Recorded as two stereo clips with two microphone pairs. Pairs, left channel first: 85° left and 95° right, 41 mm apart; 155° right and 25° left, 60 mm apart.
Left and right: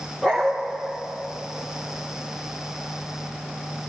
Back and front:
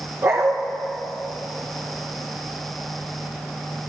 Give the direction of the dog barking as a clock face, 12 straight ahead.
12 o'clock.